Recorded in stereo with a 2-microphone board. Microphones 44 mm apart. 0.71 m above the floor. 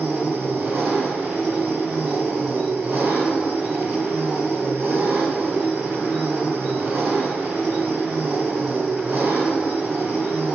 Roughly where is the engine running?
Right.